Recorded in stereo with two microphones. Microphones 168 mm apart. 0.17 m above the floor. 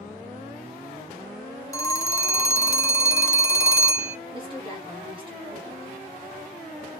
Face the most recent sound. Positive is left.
turn(degrees=-30)  # may be behind; listen again after turning